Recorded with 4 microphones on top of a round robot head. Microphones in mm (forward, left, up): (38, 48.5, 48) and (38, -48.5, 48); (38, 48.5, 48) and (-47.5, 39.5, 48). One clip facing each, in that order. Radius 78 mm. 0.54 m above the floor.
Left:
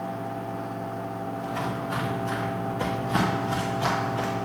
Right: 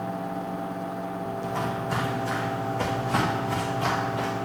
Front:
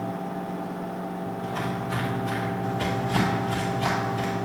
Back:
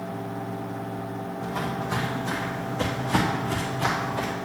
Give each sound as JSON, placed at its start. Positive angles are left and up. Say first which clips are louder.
{"t": 1.4, "sound": "footsteps", "louder": "right 1 dB, back 2 dB", "azimuth_deg": -105, "distance_m": 1.8}